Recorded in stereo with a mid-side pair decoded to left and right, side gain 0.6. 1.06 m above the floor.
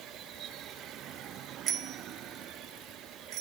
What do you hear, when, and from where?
1.7 s a bicycle bell: 45° right, 2 m; by 3.4 s 75° right, 3 m